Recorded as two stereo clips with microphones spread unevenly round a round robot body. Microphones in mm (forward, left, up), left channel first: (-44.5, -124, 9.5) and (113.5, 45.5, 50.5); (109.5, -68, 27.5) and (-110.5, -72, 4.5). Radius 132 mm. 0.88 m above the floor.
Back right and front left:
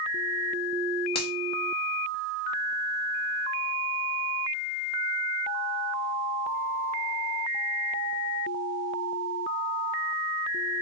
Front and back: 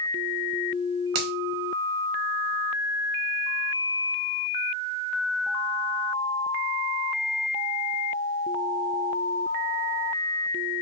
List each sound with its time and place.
1.1 s a finger snap: 160° left, 0.7 m